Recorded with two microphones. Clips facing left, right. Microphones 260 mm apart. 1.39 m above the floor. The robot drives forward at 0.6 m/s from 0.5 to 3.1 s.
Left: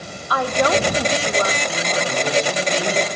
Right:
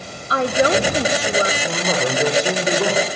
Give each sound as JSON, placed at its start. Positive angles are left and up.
{"t": 0.3, "sound": "a woman speaking", "side_deg": -25, "distance_m": 1.6}
{"t": 1.6, "sound": "a man speaking", "side_deg": -80, "distance_m": 4.0}